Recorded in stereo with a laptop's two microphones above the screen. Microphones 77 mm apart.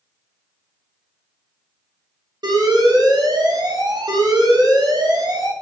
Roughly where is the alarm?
Right.